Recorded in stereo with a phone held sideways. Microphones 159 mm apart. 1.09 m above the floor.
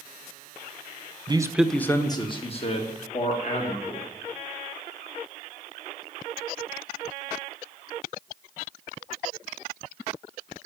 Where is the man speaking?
30° right (ahead or behind), 0.9 m; by 4.1 s 50° left (ahead or behind), 3.5 m.